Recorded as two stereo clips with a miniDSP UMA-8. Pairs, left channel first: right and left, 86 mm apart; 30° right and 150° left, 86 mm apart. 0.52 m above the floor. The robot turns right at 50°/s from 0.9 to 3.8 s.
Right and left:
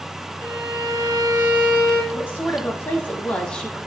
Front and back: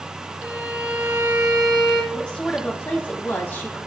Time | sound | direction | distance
0.4 | a violin | 80° left | 1.7 m
2.1 | a woman speaking | 100° right | 1.2 m